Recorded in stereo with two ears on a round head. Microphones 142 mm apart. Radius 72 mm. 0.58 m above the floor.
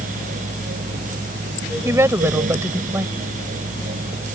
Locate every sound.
1.9 s a woman speaking: 20° right (ahead or behind)